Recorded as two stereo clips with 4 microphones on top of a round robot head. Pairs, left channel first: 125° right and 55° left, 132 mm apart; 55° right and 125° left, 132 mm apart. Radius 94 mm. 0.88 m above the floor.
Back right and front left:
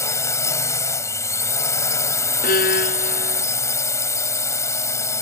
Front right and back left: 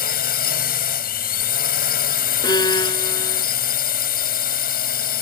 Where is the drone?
55° right.